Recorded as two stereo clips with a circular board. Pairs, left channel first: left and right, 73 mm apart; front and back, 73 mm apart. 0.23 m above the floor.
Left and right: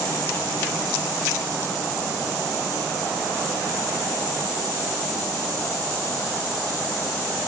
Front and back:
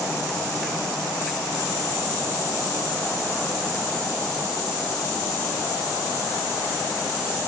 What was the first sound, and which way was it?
Only background noise.